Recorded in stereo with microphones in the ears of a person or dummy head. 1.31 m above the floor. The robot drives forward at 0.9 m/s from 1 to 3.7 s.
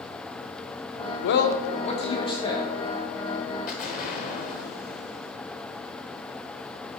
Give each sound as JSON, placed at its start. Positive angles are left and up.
{"t": 1.2, "sound": "a man speaking", "side_deg": 65, "distance_m": 0.6}
{"t": 3.7, "sound": "an explosion", "side_deg": 40, "distance_m": 1.4}